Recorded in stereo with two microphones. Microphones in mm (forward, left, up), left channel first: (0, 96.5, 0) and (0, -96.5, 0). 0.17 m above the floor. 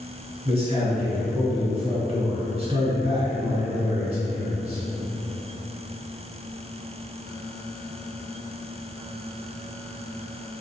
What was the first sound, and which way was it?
A man speaking, 30° right (ahead or behind).